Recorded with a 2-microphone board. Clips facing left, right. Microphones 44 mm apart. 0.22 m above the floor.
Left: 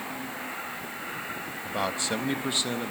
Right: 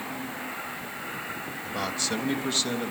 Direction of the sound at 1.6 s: 20° left (ahead or behind).